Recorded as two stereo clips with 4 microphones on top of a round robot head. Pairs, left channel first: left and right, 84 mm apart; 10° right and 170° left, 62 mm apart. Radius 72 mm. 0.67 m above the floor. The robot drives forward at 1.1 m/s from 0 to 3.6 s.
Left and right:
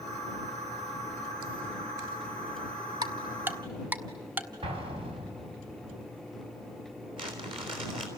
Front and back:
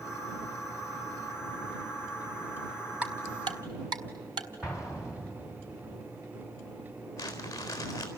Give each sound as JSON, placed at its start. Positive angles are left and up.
{"t": 3.0, "sound": "ticking", "azimuth_deg": -105, "distance_m": 0.5}
{"t": 4.6, "sound": "an explosion", "azimuth_deg": -105, "distance_m": 4.5}
{"t": 7.2, "sound": "crumpling", "azimuth_deg": -65, "distance_m": 4.0}